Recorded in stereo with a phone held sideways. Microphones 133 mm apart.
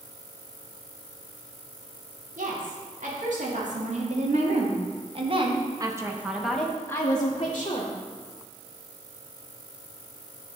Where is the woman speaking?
75° right (ahead or behind), 3 m; by 7.9 s 50° left (ahead or behind), 1.4 m.